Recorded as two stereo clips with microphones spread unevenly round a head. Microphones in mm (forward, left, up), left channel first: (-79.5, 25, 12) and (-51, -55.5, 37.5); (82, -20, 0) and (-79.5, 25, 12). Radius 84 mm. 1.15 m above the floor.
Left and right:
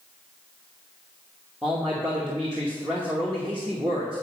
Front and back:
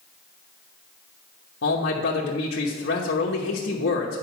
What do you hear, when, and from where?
1.6 s a man speaking: 15° left, 1.1 m